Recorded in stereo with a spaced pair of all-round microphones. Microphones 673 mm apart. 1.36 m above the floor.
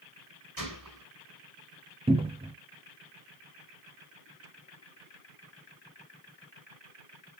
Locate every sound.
0.6 s a gunshot: 30° right (ahead or behind), 2.5 m
2.1 s a cupboard door: 10° right (ahead or behind), 0.6 m